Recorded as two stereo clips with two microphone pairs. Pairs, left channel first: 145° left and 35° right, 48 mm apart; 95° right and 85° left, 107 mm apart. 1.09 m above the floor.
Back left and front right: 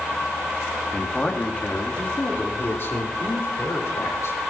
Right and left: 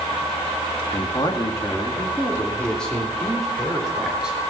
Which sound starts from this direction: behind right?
A man speaking, at 0.9 s.